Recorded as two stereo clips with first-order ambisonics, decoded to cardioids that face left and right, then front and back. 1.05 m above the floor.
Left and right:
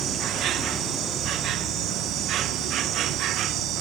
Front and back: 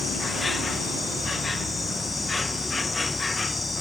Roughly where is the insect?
Right.